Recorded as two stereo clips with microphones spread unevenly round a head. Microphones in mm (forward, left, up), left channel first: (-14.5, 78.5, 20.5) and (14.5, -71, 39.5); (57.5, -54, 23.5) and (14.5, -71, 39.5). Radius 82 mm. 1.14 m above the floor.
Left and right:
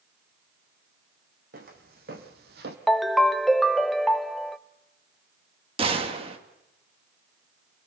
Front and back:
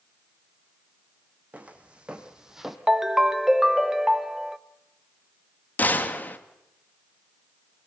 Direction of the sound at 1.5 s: 110° right.